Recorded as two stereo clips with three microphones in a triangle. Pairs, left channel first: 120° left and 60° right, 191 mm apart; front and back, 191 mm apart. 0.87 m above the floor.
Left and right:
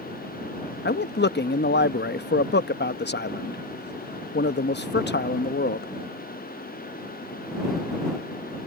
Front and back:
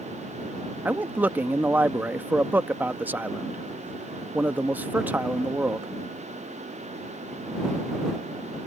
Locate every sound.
0.8 s a man speaking: 100° left